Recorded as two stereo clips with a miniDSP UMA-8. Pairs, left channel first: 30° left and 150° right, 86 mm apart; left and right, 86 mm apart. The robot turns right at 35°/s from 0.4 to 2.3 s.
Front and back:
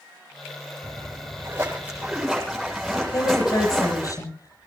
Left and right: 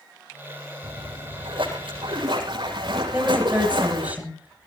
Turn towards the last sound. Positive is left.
turn(degrees=-20)